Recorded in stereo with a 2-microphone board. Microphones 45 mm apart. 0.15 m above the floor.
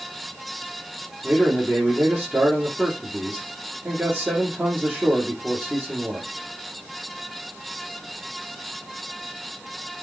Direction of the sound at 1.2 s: 25° right (ahead or behind).